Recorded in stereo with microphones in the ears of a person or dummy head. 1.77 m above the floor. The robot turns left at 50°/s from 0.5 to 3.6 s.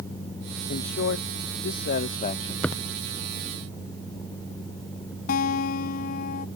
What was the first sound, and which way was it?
A man speaking, 130° left.